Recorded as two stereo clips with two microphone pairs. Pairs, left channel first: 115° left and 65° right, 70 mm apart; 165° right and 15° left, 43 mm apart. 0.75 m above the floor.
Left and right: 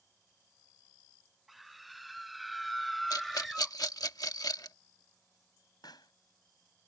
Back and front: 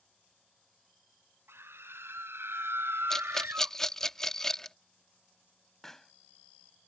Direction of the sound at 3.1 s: 120° left.